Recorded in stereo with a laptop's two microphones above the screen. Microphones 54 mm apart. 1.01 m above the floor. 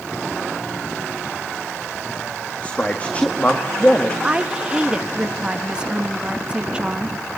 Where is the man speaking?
25° left (ahead or behind), 1.6 m.